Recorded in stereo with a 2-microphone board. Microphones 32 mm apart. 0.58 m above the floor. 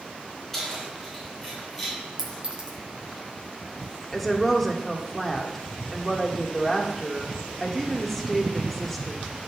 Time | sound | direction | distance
0.5 | keys jangling | 10° left (ahead or behind) | 4.5 m
2.2 | a clink | 30° right (ahead or behind) | 2 m
4.1 | a woman speaking | 5° left (ahead or behind) | 1.4 m